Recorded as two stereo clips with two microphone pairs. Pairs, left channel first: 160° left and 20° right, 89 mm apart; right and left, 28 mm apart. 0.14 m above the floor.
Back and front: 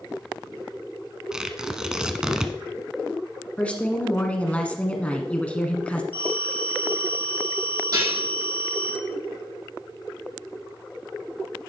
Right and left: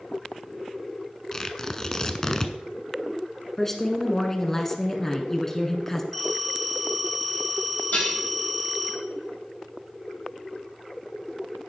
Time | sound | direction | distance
1.3 | tearing paper | 90° right | 0.6 m
3.6 | a woman speaking | 145° right | 1.2 m
6.1 | a phone ringing | 10° right | 3.5 m
7.9 | dishes clattering | 60° right | 4 m